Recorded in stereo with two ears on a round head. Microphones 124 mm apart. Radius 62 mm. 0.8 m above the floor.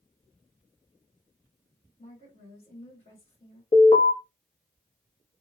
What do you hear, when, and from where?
2.0 s a woman speaking: 50° left (ahead or behind), 2.0 m
3.7 s an alarm: 35° left (ahead or behind), 1.1 m